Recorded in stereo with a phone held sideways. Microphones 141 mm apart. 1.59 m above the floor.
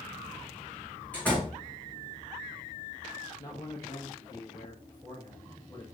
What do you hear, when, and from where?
1.1 s a door slam: 10° left (ahead or behind), 2.5 m
3.4 s a man speaking: 25° left (ahead or behind), 1.1 m